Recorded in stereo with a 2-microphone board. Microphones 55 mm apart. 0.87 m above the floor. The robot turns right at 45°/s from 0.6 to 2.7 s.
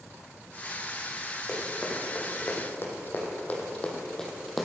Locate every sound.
1.5 s running footsteps: 5° left (ahead or behind), 3 m; by 4.7 s 5° right (ahead or behind), 1.7 m